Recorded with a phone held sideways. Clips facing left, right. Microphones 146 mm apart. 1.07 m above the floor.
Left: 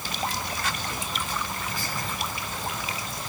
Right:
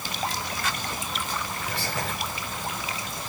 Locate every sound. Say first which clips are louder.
1.7 s whispering: right 2 dB; 80° right, 4 m